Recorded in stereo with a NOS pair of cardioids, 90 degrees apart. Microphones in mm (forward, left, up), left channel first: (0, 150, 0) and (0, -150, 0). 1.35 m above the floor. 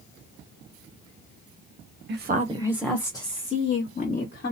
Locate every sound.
2.1 s a woman speaking: 40° right, 0.7 m; by 4.5 s 40° left, 1.4 m